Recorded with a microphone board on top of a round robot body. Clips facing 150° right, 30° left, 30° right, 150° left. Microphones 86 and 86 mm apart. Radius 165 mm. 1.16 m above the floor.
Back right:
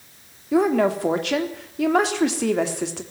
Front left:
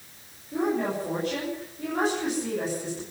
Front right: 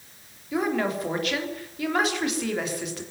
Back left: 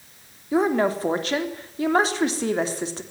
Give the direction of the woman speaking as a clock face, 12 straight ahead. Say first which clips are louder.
Back right 8 dB, back left 5 dB; 5 o'clock.